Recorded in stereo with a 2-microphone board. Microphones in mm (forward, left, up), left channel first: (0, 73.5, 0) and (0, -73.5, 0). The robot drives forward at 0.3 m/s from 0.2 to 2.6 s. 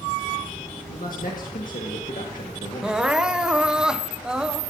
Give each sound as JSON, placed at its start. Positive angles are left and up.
{"t": 0.9, "sound": "a man speaking", "side_deg": 70, "distance_m": 1.6}
{"t": 2.8, "sound": "crying", "side_deg": -5, "distance_m": 0.6}